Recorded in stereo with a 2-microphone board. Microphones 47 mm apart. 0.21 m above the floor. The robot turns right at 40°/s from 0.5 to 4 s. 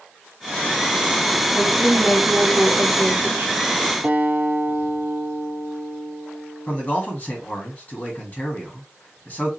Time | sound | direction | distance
1.5 | a woman speaking | 165° right | 1.9 m
4.0 | a guitar | 45° right (ahead or behind) | 2.0 m
6.7 | a man speaking | 30° left (ahead or behind) | 1.9 m